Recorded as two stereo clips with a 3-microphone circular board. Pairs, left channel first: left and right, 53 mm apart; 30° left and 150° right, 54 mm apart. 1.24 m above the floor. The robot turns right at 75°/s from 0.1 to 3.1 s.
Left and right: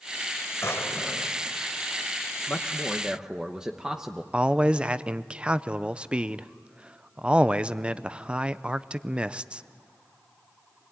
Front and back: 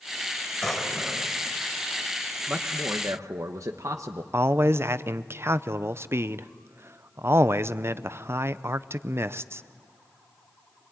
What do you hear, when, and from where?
0.6 s a drawer: 110° left, 2.0 m; by 1.4 s 165° left, 2.0 m
2.5 s a man speaking: 145° left, 0.9 m; by 4.2 s 165° right, 0.9 m
4.3 s a man speaking: 155° right, 0.6 m